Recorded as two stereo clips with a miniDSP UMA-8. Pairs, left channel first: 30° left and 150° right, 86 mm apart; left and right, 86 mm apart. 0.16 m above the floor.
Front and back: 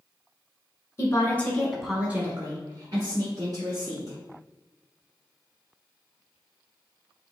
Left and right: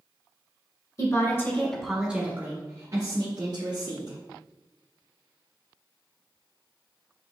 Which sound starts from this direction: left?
A woman speaking, at 1.0 s.